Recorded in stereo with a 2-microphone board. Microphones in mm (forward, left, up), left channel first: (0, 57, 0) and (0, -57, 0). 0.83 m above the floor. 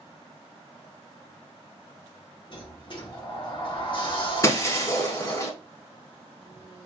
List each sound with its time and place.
2.5 s a sliding door: 45° left (ahead or behind), 1.3 m
4.4 s breaking glass: 25° left (ahead or behind), 0.8 m